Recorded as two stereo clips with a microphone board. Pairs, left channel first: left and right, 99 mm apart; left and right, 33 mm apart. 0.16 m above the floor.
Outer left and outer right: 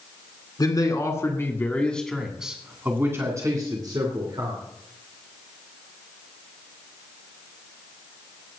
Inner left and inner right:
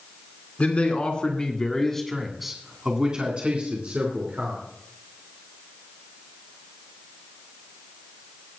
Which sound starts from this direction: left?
A man speaking, at 0.6 s.